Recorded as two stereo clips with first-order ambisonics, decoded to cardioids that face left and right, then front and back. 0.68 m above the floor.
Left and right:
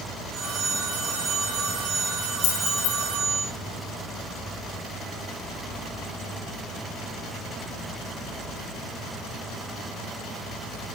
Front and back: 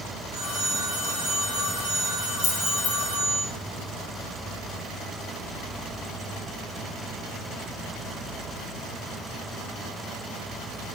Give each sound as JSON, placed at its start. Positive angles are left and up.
{"t": 0.3, "sound": "a phone ringing", "azimuth_deg": -125, "distance_m": 2.5}
{"t": 2.4, "sound": "keys jangling", "azimuth_deg": 70, "distance_m": 3.0}